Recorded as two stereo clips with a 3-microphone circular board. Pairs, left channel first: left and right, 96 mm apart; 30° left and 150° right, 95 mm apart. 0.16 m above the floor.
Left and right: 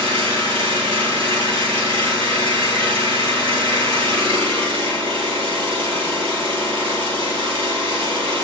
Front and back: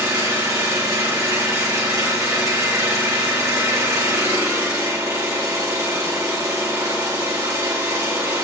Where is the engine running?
100° right, 3.5 m.